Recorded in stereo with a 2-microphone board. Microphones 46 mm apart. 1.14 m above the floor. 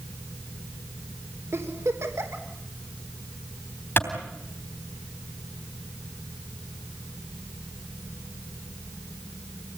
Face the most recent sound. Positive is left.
turn(degrees=55)  # may be behind; listen again after turning